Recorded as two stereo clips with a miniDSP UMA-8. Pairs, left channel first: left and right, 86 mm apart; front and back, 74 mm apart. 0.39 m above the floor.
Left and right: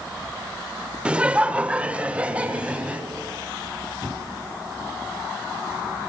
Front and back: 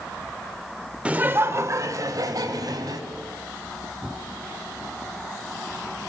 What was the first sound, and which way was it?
Laughter, 140° right.